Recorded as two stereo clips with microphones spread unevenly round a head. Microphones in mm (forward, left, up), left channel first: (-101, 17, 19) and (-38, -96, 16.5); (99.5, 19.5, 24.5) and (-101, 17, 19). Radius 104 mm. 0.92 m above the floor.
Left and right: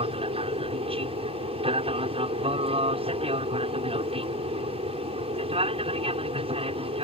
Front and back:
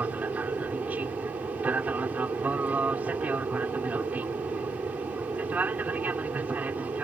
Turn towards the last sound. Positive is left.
turn(degrees=-95)